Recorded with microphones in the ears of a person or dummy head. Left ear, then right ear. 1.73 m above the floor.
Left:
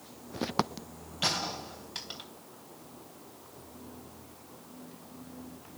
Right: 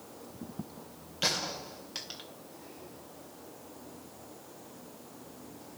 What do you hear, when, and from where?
1.2 s a gunshot: 10° right (ahead or behind), 2.5 m